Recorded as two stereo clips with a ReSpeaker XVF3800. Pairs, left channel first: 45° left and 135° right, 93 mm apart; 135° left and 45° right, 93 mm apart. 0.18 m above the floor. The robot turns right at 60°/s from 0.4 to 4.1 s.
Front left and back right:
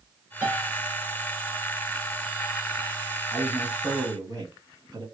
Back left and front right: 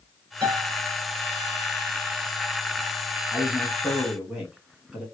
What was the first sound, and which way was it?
A piano, 65° right.